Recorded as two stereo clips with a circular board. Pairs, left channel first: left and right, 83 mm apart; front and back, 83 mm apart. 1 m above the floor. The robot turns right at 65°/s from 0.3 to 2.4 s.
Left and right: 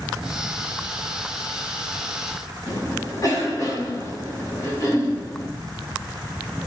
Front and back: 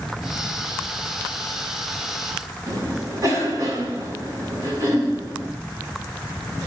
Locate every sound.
2.7 s a cough: 135° left, 6.5 m